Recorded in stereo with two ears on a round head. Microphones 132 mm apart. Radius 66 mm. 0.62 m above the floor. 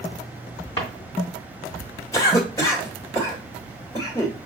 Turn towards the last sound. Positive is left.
turn(degrees=25)  # may be behind; listen again after turning